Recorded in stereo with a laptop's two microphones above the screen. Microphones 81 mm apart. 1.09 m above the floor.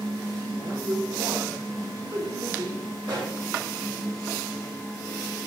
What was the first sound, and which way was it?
A woman speaking, 55° right (ahead or behind).